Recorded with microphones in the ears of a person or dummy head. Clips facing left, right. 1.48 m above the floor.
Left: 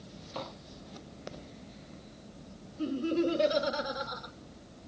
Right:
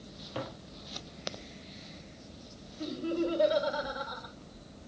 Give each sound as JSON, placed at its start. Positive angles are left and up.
{"t": 0.3, "sound": "tapping", "side_deg": -20, "distance_m": 0.5}
{"t": 2.8, "sound": "laughter", "side_deg": 35, "distance_m": 2.5}